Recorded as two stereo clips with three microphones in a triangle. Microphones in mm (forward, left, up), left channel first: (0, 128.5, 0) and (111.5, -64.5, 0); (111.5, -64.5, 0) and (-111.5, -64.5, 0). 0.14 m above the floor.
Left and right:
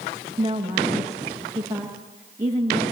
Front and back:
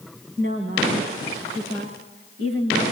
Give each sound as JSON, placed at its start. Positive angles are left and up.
{"t": 0.4, "sound": "a woman speaking", "azimuth_deg": -135, "distance_m": 9.0}